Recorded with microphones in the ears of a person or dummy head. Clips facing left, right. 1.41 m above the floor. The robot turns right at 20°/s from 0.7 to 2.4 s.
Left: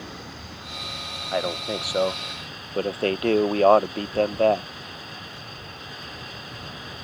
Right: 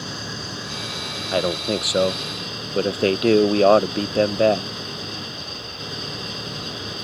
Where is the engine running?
90° right; by 7.1 s 55° right.